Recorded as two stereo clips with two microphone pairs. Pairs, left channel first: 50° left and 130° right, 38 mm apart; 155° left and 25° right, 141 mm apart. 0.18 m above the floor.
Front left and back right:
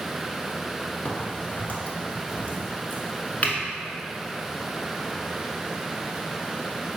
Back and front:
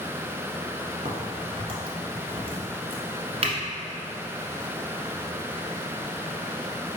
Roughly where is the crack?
Ahead.